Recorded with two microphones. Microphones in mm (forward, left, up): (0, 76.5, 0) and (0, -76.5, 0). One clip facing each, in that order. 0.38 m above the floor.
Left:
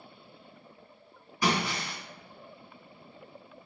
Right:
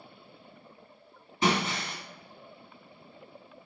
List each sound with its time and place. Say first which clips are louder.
1.4 s breaking glass: right 1 dB; 25° right (ahead or behind), 2.5 m